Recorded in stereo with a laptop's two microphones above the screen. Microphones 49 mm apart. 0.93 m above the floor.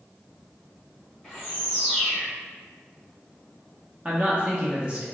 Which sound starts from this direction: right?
A man speaking, at 4.0 s.